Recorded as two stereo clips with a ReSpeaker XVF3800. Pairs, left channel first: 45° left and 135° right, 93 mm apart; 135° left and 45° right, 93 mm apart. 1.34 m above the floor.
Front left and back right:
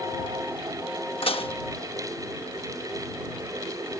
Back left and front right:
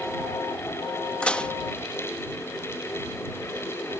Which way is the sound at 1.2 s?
60° left.